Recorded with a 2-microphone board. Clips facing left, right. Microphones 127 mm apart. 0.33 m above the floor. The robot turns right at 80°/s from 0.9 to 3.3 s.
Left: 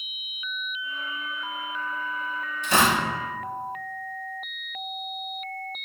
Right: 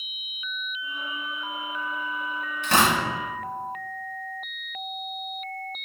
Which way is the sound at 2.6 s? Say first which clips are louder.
Even; 65° right (ahead or behind).